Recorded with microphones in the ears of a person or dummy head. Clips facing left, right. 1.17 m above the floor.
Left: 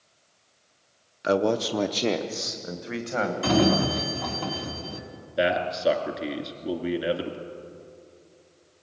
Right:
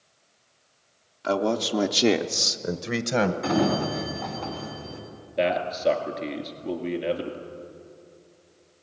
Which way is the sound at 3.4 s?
50° left (ahead or behind).